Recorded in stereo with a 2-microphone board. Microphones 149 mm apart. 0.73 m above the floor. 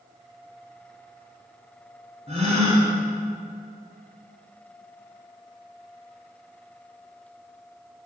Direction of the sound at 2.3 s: 40° right (ahead or behind).